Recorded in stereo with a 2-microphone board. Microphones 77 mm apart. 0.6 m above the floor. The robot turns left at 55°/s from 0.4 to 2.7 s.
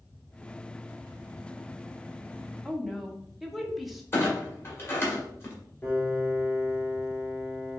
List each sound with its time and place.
2.6 s a woman speaking: 5° right (ahead or behind), 0.8 m; by 4.0 s centre (ahead or behind), 0.8 m
4.1 s a clunk: 35° left (ahead or behind), 1.3 m
5.8 s a piano: 30° left (ahead or behind), 2.5 m